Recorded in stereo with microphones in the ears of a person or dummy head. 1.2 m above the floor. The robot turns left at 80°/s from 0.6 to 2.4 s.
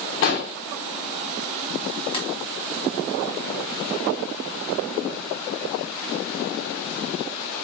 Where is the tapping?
30° left (ahead or behind), 1.3 m; by 2.3 s 40° left (ahead or behind), 1.3 m.